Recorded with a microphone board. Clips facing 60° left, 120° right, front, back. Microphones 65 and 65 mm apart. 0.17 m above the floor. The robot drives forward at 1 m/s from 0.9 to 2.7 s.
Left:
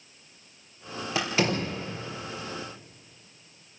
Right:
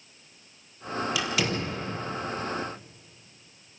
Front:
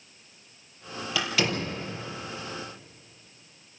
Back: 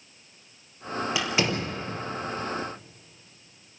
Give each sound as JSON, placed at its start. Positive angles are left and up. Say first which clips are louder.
{"t": 1.1, "sound": "a door slam", "louder": "left 6 dB, front 1 dB", "azimuth_deg": 115, "distance_m": 4.0}